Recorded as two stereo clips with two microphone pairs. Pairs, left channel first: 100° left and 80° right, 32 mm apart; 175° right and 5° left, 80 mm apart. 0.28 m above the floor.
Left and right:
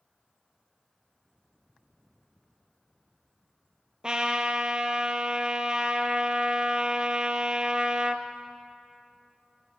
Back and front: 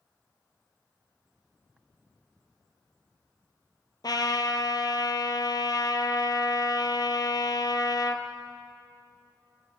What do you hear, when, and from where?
4.0 s a trumpet: 145° right, 1.4 m